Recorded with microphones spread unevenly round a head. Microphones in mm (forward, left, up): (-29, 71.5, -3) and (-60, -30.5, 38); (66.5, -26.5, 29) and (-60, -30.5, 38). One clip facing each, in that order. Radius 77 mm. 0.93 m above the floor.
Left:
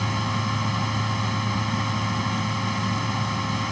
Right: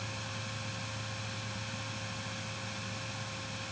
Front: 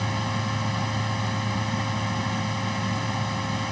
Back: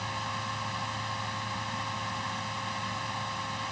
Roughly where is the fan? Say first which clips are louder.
Left 16 dB, front 7 dB; ahead left.